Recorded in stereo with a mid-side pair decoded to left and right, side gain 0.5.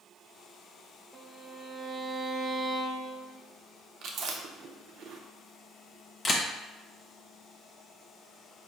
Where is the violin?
25° right, 0.7 m.